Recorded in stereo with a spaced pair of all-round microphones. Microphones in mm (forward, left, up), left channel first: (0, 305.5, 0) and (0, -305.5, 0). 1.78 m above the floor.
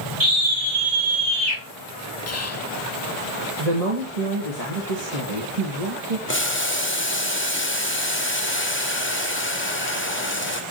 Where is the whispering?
25° left (ahead or behind), 0.6 m.